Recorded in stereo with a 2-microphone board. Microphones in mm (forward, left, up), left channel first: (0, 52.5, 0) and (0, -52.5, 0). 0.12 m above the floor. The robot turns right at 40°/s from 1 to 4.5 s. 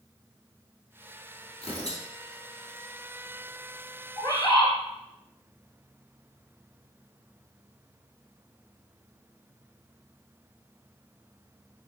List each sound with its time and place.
1.6 s tearing paper: 65° left (ahead or behind), 2 m; by 2.0 s 60° left (ahead or behind), 2 m
4.2 s a bird: 30° left (ahead or behind), 1.1 m; by 4.7 s 35° left (ahead or behind), 1.1 m